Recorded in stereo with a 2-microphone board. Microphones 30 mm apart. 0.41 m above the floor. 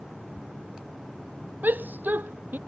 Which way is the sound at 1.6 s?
85° right.